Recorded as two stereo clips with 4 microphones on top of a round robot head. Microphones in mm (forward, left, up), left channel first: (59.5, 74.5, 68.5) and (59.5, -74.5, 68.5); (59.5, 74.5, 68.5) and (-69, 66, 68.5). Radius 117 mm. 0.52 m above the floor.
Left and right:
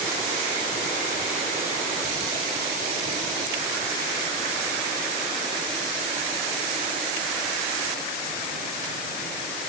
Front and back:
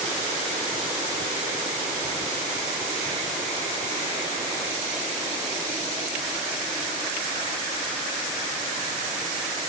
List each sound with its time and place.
Only background noise.